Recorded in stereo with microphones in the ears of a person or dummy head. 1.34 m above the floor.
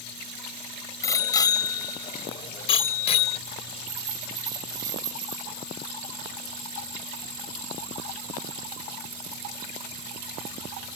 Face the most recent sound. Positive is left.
turn(degrees=-20)  # may be behind; listen again after turning